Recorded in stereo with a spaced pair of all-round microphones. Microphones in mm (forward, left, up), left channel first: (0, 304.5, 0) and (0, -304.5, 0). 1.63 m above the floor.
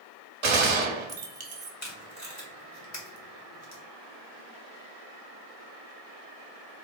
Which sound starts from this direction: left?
Tape being pulled, at 1.8 s.